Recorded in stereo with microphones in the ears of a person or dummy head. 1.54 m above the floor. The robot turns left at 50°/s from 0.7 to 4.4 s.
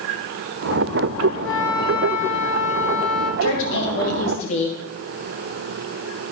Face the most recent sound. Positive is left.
turn(degrees=35)